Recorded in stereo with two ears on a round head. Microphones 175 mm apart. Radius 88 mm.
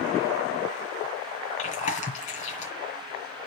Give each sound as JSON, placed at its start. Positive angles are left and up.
{"t": 1.6, "sound": "chewing", "side_deg": 35, "distance_m": 2.5}